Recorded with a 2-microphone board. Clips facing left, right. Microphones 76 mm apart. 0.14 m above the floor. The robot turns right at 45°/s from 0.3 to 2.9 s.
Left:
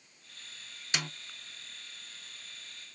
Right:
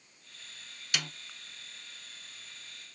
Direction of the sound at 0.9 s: 30° left (ahead or behind).